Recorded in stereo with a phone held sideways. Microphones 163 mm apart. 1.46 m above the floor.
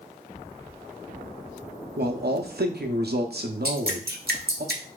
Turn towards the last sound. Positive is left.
turn(degrees=-70)  # may be behind; listen again after turning